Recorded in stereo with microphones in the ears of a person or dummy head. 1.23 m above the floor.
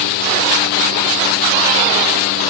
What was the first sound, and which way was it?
Only background noise.